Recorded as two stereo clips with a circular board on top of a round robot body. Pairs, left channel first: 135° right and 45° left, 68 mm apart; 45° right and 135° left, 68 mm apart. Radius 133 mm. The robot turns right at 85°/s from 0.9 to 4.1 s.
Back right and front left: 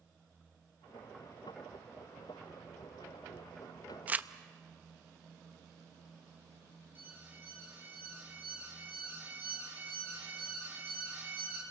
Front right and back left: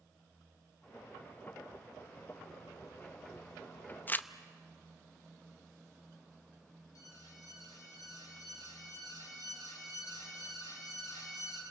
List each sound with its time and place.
4.1 s crumpling: 10° right, 0.9 m; by 4.3 s 5° right, 0.9 m
7.0 s an alarm: 15° right, 5 m